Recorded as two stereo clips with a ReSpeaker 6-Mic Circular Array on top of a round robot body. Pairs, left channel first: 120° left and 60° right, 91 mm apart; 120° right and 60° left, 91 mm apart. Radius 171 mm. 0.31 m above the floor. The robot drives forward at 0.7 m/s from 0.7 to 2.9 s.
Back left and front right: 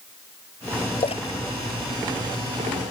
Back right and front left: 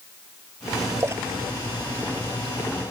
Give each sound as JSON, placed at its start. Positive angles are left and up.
{"t": 1.0, "sound": "a splash", "azimuth_deg": 120}